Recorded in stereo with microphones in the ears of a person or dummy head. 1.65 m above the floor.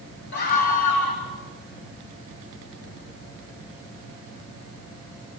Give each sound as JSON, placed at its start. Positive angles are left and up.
{"t": 0.3, "sound": "a scream", "side_deg": 55, "distance_m": 3.0}